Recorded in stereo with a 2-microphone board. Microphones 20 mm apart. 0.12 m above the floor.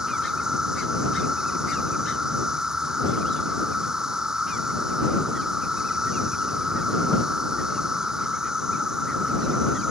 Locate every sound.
0.0 s an insect: 30° right (ahead or behind)